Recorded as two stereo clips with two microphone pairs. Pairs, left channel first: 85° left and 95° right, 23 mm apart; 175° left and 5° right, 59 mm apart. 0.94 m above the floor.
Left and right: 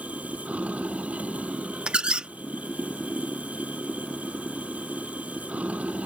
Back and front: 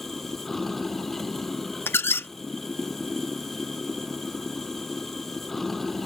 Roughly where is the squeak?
Behind right.